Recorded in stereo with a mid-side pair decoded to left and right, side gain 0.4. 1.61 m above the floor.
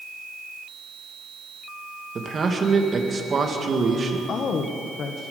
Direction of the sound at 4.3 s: 65° left.